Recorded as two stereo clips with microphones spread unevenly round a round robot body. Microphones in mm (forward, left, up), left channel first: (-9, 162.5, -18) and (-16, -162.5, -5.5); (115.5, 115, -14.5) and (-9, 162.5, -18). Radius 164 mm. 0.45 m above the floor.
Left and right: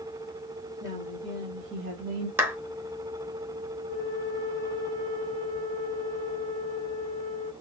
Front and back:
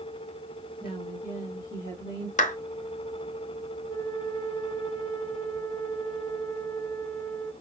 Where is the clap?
5° right, 1.0 m.